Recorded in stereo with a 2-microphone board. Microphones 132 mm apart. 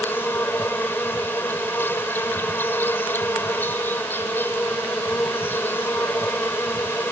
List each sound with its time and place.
0.0 s an insect: 15° left (ahead or behind)